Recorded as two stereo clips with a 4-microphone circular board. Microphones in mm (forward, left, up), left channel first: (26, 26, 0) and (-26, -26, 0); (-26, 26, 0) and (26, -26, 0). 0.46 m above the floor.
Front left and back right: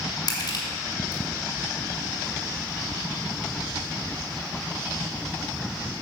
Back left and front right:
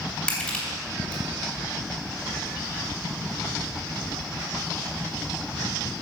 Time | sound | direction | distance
0.3 | crushing | 60° left | 3 m